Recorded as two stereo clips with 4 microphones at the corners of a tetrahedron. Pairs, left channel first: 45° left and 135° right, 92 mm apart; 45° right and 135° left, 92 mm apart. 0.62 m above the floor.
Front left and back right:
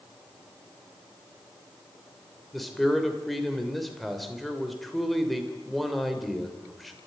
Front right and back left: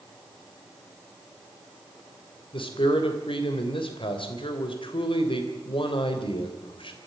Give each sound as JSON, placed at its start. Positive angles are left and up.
{"t": 2.5, "sound": "a man speaking", "azimuth_deg": -45, "distance_m": 3.0}